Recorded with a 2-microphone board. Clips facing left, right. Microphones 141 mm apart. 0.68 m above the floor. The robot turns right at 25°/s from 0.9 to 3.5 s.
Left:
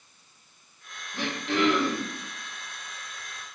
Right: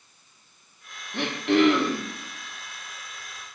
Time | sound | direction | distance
1.1 | throat clearing | 70° right (ahead or behind) | 0.6 m